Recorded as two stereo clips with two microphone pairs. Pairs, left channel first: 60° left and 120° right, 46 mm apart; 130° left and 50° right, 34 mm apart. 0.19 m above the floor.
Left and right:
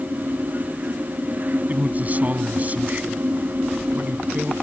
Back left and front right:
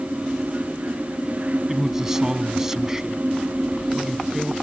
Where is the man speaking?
115° right.